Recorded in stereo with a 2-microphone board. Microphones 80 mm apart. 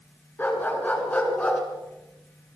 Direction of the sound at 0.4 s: 20° left (ahead or behind).